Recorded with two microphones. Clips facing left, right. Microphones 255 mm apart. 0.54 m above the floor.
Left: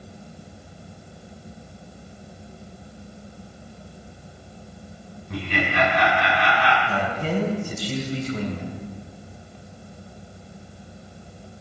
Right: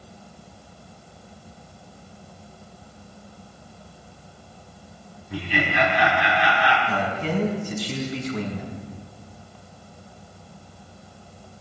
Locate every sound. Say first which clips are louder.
5.3 s laughter: even; 80° left, 4.5 m
6.9 s a man speaking: even; 45° left (ahead or behind), 3.5 m